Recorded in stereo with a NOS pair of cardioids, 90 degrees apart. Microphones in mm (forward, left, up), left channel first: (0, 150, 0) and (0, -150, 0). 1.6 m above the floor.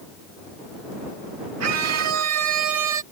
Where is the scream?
60° right; by 3.0 s 75° right.